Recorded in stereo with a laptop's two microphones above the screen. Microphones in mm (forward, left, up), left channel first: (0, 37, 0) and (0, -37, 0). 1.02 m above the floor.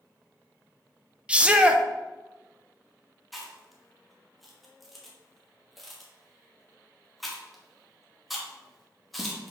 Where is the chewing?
Centre (ahead or behind), 1.0 m.